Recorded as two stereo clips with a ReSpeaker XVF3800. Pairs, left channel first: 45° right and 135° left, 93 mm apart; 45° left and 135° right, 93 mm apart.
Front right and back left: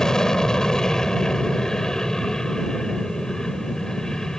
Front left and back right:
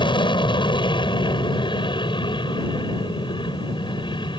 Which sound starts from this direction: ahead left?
An aircraft, at 0.0 s.